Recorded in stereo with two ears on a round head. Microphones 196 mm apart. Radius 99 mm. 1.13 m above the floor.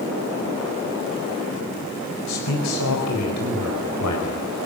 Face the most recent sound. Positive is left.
turn(degrees=85)